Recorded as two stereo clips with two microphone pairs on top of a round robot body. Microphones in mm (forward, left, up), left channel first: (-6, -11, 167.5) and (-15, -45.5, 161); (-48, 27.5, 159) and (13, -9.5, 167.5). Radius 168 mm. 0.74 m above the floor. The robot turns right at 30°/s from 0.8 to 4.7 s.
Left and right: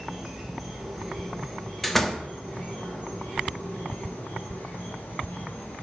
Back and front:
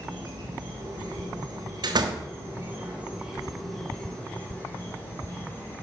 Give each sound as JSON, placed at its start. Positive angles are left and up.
{"t": 0.0, "sound": "an insect", "azimuth_deg": -25, "distance_m": 5.5}
{"t": 1.8, "sound": "a door slam", "azimuth_deg": -15, "distance_m": 1.5}